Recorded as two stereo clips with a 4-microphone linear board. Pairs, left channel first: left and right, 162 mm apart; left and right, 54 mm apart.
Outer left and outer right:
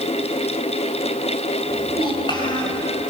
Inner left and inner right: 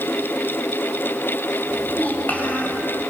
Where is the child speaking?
30° left (ahead or behind), 5.5 m.